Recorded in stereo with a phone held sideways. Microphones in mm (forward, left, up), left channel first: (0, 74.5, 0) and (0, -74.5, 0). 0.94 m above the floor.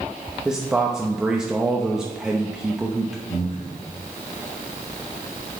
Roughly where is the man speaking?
Centre.